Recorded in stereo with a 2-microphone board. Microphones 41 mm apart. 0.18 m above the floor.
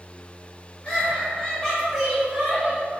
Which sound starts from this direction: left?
Laughter, at 0.8 s.